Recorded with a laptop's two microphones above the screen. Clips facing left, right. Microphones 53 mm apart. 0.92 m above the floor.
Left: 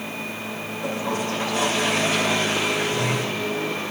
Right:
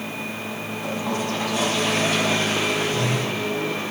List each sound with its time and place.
0.8 s a toilet flushing: 30° left (ahead or behind), 2.5 m